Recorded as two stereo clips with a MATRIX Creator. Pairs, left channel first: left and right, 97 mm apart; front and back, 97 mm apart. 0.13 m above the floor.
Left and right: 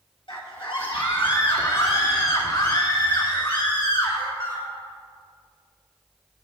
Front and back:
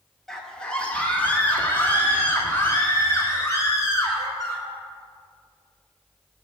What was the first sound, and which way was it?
A scream, 85° left.